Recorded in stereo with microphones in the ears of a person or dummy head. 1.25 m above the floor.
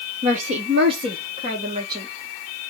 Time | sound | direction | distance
0.2 | a woman speaking | 35° right (ahead or behind) | 0.7 m